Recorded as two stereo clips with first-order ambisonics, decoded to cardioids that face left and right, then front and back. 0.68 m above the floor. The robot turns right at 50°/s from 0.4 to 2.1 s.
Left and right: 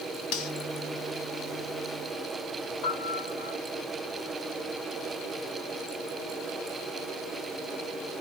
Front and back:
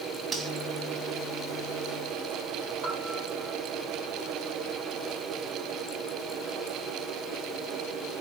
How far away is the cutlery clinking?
About 1.8 m.